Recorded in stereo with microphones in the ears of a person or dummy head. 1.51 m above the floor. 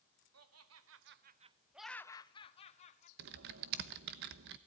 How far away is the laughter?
About 1.2 m.